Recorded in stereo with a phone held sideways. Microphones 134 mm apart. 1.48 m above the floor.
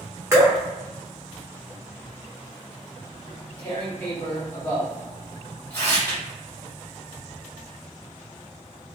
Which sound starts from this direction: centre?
Tearing paper, at 3.3 s.